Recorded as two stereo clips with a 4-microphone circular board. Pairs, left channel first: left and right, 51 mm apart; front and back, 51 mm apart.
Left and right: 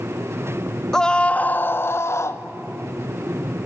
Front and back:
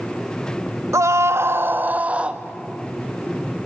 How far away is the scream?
About 0.7 m.